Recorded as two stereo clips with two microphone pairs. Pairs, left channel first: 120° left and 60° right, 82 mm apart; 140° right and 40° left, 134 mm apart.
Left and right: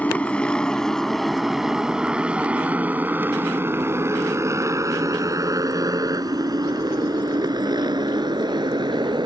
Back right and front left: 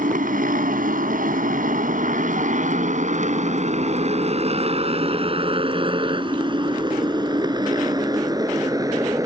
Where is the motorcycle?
45° left; by 9.3 s 30° right.